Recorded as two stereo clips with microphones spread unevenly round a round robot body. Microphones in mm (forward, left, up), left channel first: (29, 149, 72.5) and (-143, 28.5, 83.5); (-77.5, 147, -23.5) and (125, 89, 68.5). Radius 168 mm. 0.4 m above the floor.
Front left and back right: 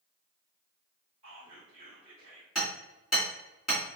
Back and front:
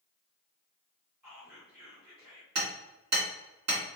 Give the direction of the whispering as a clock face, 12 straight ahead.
3 o'clock.